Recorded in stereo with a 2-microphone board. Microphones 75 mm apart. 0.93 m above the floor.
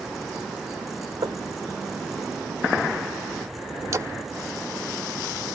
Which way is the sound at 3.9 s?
45° right (ahead or behind).